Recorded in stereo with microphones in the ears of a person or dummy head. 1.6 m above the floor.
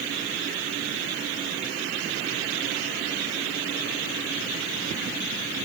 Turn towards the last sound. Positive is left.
No sound to turn to.